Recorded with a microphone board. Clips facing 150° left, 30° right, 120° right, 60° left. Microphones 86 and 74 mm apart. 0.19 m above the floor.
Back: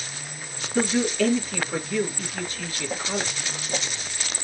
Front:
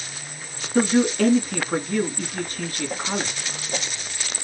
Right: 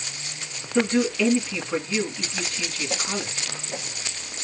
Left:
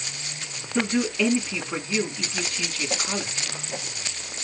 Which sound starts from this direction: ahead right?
A man speaking, at 0.8 s.